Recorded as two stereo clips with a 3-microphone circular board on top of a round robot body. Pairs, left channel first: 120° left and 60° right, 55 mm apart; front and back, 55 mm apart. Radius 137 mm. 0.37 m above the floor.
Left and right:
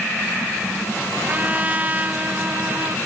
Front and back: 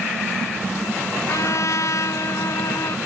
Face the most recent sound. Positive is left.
turn(degrees=0)